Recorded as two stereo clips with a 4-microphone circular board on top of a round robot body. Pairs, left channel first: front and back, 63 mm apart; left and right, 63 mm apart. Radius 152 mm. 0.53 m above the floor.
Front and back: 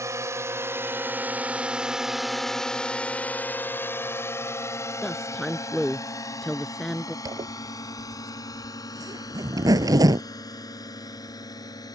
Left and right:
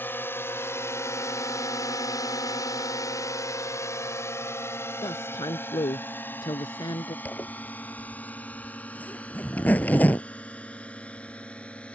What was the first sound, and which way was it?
A drone, 145° left.